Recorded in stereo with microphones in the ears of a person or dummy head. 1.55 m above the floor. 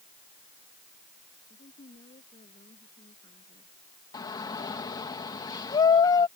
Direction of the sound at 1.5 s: 30° left (ahead or behind).